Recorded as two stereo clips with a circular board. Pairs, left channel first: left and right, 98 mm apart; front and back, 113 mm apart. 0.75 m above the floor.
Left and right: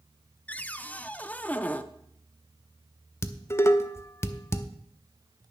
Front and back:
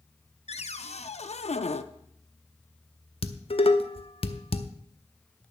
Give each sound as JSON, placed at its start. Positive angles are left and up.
{"t": 0.5, "sound": "a cupboard door", "azimuth_deg": 15, "distance_m": 0.5}
{"t": 3.2, "sound": "dishes clattering", "azimuth_deg": 30, "distance_m": 0.7}